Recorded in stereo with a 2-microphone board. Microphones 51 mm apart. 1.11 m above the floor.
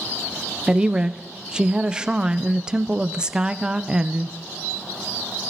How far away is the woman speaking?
About 0.6 m.